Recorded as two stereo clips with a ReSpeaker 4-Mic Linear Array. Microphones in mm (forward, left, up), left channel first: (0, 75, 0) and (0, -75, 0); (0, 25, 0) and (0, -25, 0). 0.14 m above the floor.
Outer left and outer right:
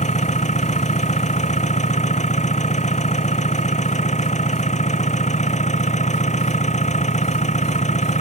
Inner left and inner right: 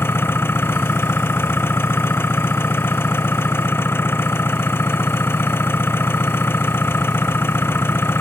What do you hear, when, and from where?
0.0 s an engine running: 50° left (ahead or behind)